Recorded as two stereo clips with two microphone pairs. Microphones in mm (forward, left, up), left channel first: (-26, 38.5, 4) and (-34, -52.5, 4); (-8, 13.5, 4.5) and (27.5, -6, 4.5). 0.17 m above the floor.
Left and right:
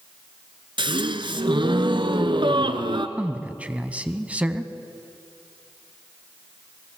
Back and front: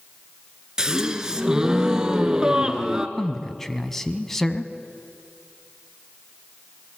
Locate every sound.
0.8 s a gasp: 100° right, 1.2 m
3.2 s a man speaking: 135° right, 1.0 m